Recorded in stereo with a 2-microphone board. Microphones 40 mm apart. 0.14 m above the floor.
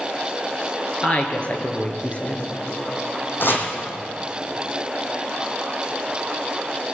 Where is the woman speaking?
35° left (ahead or behind), 2 m.